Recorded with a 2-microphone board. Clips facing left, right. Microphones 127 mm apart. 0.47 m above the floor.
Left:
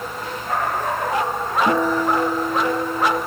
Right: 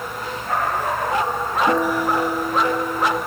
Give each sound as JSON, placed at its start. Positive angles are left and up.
{"t": 1.7, "sound": "a guitar", "side_deg": 65, "distance_m": 3.5}